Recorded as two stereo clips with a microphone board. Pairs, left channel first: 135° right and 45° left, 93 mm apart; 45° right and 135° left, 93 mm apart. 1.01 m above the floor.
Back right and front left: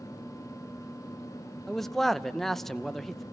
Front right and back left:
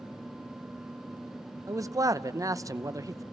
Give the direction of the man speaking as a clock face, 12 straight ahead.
7 o'clock.